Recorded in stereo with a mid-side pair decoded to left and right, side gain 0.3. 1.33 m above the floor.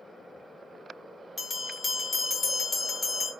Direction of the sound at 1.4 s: 55° left.